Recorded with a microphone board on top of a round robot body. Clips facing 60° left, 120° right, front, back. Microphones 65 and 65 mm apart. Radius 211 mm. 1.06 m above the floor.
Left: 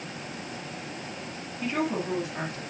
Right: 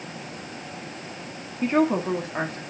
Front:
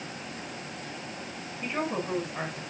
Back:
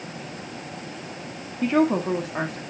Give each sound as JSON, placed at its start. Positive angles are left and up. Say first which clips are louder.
{"t": 1.6, "sound": "a woman speaking", "louder": "right 7 dB, back 11 dB", "azimuth_deg": -175, "distance_m": 2.0}